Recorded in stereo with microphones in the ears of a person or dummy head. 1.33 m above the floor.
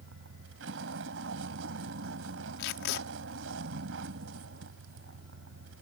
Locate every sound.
0.0 s a vehicle: 75° right (ahead or behind)
2.6 s tape being pulled: 60° left (ahead or behind)